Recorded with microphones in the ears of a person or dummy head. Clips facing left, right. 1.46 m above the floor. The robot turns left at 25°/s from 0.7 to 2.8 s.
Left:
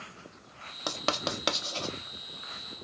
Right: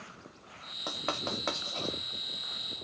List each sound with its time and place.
0.9 s writing: 70° left (ahead or behind), 0.5 m; by 1.9 s 40° left (ahead or behind), 0.5 m